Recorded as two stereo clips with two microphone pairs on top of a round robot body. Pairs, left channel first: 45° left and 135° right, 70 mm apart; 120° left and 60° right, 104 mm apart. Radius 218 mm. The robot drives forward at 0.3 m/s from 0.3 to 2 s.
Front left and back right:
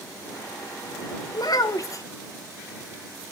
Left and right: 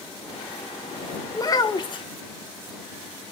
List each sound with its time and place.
1.3 s a child speaking: 65° left, 0.6 m; by 2.0 s 85° left, 0.6 m